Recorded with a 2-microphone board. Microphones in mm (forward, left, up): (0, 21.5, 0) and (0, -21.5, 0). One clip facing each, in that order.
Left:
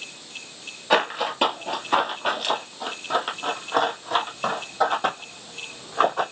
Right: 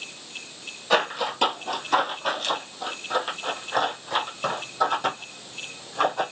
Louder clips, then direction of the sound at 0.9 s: Left 1 dB; 20° left (ahead or behind).